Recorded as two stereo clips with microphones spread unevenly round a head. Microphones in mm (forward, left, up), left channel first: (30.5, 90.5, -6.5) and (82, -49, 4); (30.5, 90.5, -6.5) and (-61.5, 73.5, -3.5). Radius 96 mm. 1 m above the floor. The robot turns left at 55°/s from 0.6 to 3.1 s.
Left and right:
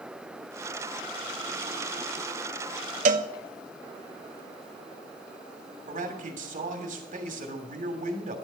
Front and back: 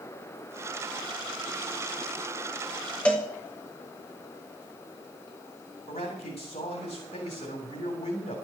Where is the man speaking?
40° right, 3 m.